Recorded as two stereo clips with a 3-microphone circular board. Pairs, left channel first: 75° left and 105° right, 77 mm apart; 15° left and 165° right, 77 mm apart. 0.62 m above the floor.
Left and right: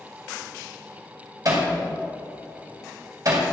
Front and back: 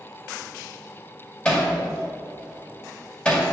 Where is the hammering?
60° right, 2 m.